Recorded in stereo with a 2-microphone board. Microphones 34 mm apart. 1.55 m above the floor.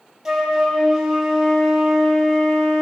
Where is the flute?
10° right (ahead or behind), 1.1 m.